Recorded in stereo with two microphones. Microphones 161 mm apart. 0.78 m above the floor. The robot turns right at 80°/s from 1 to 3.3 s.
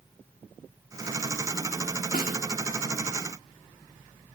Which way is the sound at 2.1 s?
65° left (ahead or behind).